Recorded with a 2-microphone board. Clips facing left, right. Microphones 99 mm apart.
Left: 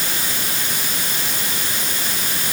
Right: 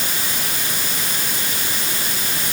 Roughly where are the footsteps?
No footsteps in this recording.